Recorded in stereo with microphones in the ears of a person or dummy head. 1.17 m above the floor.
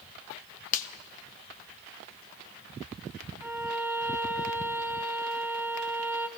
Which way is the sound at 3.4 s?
10° right (ahead or behind).